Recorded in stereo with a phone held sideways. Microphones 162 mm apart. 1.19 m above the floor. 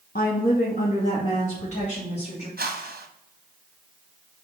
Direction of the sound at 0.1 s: 65° left (ahead or behind).